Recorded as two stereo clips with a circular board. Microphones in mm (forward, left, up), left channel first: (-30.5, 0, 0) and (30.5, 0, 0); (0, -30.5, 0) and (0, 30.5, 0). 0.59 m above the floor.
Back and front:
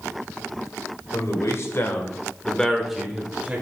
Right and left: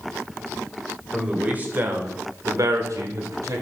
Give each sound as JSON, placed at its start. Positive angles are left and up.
{"t": 1.1, "sound": "a man speaking", "azimuth_deg": 160, "distance_m": 2.0}